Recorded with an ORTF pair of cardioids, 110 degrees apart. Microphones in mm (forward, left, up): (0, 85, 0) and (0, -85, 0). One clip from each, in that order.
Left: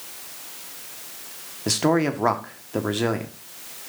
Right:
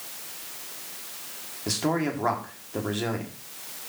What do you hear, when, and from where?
1.7 s a man speaking: 35° left, 1.6 m